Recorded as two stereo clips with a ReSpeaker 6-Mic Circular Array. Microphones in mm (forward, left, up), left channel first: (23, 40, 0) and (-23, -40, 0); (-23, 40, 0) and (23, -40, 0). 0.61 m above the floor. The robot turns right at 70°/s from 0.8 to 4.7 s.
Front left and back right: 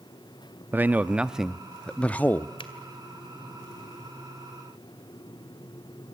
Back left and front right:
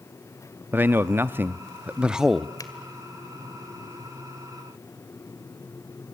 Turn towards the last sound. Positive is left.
turn(degrees=-140)